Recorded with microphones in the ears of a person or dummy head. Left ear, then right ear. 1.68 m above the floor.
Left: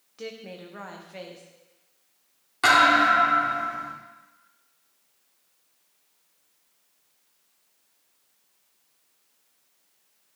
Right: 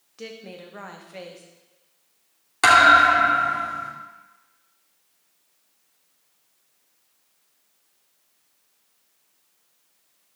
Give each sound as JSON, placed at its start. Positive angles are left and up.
{"t": 0.2, "sound": "a woman speaking", "side_deg": -5, "distance_m": 1.2}
{"t": 2.6, "sound": "a thud", "side_deg": -25, "distance_m": 2.0}